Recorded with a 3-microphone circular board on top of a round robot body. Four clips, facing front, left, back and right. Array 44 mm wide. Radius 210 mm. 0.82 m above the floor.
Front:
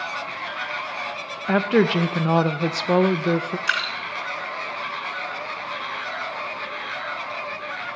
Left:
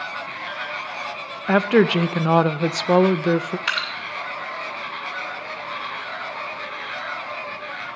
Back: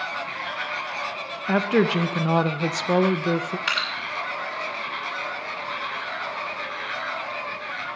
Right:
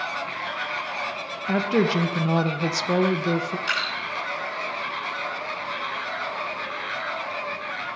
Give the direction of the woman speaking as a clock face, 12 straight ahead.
9 o'clock.